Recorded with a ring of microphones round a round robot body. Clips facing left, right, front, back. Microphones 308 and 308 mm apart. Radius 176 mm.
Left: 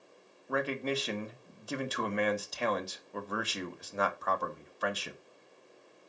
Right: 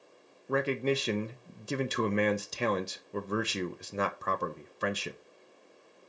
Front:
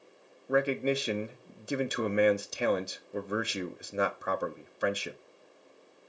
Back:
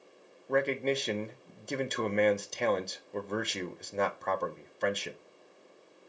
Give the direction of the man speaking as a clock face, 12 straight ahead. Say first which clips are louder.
Right 4 dB, front 1 dB; 2 o'clock.